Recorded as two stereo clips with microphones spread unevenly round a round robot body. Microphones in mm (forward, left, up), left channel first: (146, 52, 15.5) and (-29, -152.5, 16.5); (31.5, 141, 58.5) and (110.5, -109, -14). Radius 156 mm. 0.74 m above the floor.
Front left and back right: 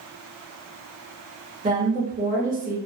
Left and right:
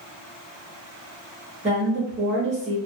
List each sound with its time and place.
1.6 s a woman speaking: 90° right, 1.2 m